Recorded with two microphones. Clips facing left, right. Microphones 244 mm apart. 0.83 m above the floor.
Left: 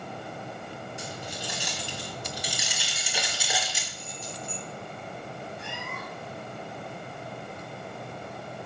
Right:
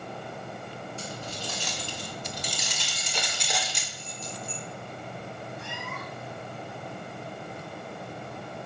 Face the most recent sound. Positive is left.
turn(degrees=60)  # may be behind; listen again after turning